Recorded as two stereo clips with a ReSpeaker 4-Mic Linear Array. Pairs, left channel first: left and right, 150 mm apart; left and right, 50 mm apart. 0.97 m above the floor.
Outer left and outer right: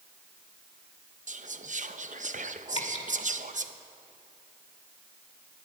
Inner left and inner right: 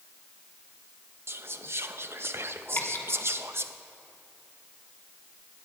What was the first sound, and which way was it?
Whispering, 55° right (ahead or behind).